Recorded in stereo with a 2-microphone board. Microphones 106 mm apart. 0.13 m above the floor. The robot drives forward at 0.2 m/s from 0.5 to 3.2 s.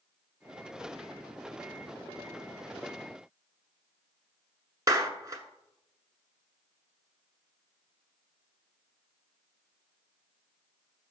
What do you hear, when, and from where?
4.9 s a clap: 35° right (ahead or behind), 1.0 m